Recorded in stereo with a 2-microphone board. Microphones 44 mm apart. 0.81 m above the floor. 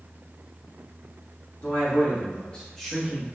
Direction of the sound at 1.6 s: 55° left (ahead or behind).